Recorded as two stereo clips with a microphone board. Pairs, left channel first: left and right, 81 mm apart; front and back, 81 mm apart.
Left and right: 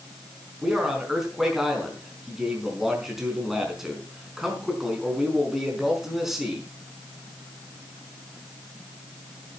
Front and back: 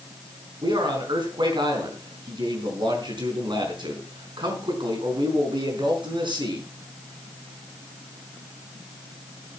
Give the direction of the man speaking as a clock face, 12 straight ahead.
6 o'clock.